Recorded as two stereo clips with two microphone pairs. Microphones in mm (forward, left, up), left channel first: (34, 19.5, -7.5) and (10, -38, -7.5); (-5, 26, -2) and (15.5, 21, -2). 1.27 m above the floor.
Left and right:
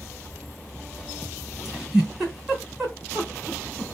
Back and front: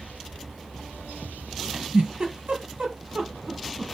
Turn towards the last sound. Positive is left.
turn(degrees=-30)